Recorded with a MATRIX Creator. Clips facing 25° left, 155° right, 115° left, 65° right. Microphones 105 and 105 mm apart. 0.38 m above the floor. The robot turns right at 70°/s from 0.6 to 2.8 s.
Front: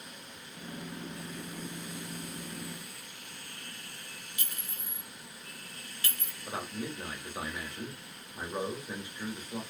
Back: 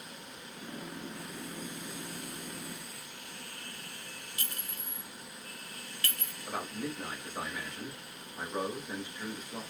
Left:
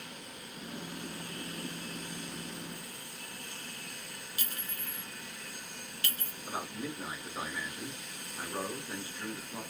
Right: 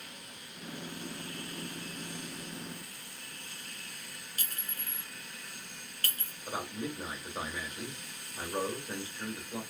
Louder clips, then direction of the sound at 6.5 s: Even, right 1 dB; 25° right.